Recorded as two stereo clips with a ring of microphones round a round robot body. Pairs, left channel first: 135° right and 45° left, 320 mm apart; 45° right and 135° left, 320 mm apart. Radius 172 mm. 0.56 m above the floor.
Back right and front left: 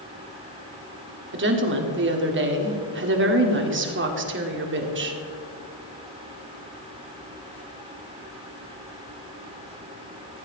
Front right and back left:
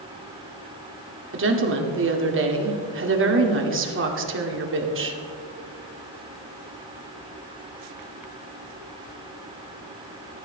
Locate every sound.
1.3 s a woman speaking: 90° left, 2 m